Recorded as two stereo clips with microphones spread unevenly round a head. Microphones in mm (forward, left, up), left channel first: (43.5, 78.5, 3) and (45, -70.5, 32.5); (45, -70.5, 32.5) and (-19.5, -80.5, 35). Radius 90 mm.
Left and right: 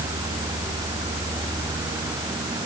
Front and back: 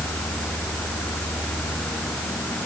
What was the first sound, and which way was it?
Only background noise.